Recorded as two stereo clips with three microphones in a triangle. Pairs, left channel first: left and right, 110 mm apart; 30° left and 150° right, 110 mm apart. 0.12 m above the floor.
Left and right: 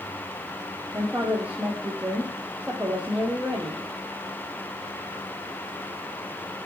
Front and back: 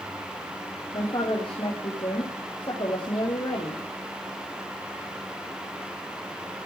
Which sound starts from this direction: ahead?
A woman speaking, at 0.9 s.